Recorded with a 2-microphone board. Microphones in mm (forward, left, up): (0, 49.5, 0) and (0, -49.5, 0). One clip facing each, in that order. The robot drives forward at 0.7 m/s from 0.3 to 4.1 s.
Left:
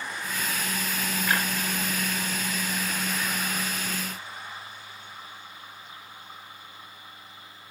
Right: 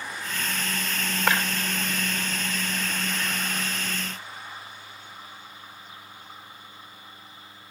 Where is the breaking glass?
85° right, 3 m.